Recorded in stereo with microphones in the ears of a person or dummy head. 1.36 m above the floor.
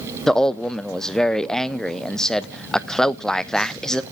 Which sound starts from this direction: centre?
A man speaking, at 0.3 s.